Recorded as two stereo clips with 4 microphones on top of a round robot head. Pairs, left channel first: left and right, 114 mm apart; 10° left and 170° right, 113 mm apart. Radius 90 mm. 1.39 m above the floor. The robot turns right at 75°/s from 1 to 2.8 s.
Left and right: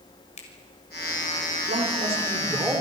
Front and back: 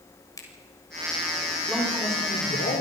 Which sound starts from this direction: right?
A man speaking, at 1.7 s.